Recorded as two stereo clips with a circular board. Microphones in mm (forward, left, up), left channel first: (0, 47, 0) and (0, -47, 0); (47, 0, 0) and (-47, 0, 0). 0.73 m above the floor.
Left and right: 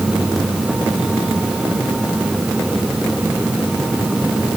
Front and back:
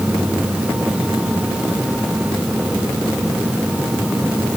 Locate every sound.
Only background noise.